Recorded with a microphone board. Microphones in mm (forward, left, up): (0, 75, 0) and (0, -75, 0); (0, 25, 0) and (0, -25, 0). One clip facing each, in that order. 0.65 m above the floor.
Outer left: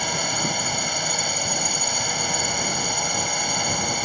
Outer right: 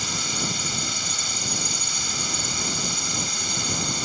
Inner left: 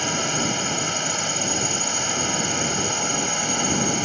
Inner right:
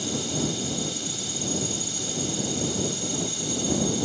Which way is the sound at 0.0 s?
60° left (ahead or behind).